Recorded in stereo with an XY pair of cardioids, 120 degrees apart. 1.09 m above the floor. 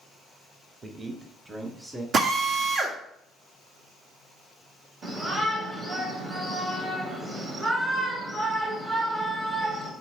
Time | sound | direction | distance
0.8 | a man speaking | 30° right | 1.3 m
2.1 | a drill | 45° right | 1.2 m
5.0 | a shout | 40° right | 2.0 m